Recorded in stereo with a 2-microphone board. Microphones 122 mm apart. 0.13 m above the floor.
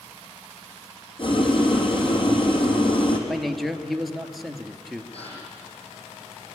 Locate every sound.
1.2 s boiling: 45° left (ahead or behind), 3 m
3.3 s a man speaking: centre (ahead or behind), 2 m
5.1 s a gasp: 60° left (ahead or behind), 7.5 m